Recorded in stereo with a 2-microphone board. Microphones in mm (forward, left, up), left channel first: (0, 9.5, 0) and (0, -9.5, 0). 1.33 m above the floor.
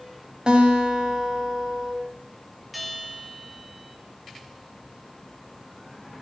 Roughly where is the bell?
Centre.